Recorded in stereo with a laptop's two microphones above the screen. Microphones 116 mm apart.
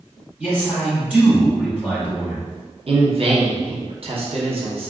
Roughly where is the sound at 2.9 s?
Right.